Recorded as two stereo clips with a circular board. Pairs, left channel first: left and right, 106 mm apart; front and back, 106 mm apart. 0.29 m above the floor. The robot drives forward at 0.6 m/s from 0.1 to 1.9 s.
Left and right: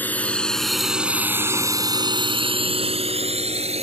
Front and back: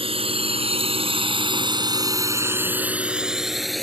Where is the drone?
165° left; by 3.8 s 90° right.